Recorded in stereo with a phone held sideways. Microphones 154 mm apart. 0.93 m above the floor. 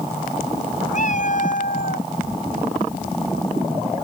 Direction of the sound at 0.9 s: 55° left (ahead or behind).